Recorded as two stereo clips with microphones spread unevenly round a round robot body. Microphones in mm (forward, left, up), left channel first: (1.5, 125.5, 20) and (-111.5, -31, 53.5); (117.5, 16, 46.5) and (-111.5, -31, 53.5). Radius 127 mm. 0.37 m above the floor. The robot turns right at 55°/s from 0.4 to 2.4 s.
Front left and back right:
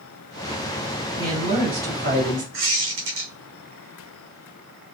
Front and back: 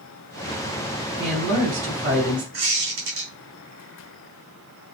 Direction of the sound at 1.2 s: 175° left.